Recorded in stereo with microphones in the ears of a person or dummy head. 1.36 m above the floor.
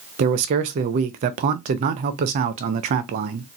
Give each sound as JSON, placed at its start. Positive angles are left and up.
{"t": 0.2, "sound": "a man speaking", "side_deg": -45, "distance_m": 0.6}